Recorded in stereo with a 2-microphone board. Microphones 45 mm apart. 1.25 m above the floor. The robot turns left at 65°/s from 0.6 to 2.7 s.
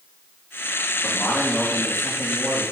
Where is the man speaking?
50° left, 3 m; by 2.6 s 55° right, 3 m.